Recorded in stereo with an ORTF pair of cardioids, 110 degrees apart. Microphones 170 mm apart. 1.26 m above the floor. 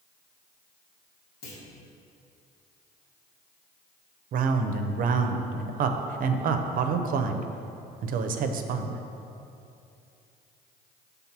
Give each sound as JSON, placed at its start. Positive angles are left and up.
{"t": 1.4, "sound": "a clunk", "azimuth_deg": 65, "distance_m": 1.7}
{"t": 4.3, "sound": "a man speaking", "azimuth_deg": -60, "distance_m": 0.6}